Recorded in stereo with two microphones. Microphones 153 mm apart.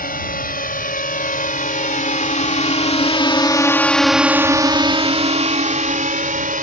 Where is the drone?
75° left (ahead or behind); by 6.6 s 65° right (ahead or behind).